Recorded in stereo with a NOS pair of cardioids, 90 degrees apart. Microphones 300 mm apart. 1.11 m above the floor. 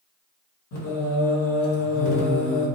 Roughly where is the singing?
Ahead left.